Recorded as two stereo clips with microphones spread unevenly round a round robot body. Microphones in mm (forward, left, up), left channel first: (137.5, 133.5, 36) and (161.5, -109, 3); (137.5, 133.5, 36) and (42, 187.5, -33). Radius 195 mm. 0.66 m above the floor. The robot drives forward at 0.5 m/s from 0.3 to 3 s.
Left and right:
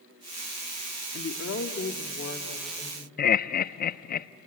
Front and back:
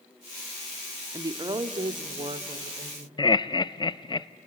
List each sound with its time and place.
1.1 s a woman speaking: 140° left, 0.9 m; by 3.1 s 165° left, 1.6 m
3.2 s laughter: 50° left, 0.7 m